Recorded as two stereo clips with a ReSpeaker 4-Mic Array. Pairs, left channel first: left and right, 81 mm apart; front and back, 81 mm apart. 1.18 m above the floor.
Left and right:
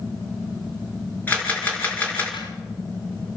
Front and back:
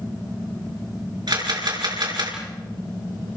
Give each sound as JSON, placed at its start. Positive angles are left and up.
{"t": 1.3, "sound": "a camera shutter", "azimuth_deg": 160, "distance_m": 5.0}